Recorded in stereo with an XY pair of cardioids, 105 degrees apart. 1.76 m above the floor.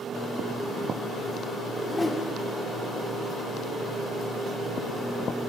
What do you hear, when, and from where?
1.7 s a whoosh: 20° left, 0.6 m